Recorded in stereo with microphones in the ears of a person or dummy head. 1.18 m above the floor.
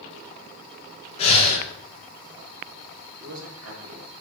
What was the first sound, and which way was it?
Breathing, 30° left (ahead or behind).